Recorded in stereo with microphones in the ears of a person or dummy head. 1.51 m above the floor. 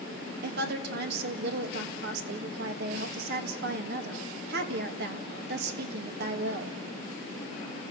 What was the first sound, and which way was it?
A woman speaking, 60° right (ahead or behind).